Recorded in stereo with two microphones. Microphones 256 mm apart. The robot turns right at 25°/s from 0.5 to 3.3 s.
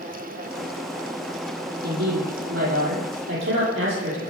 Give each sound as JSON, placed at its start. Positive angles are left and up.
{"t": 1.8, "sound": "a woman speaking", "azimuth_deg": -90, "distance_m": 10.0}